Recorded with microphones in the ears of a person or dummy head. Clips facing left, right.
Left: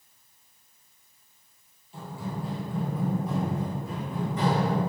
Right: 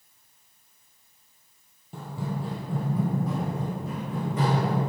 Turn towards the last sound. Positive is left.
turn(degrees=-55)  # may be behind; listen again after turning